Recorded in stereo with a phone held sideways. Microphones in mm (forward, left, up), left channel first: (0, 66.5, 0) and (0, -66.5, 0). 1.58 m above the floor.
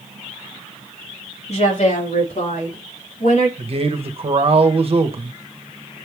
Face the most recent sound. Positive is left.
turn(degrees=-45)  # may be behind; listen again after turning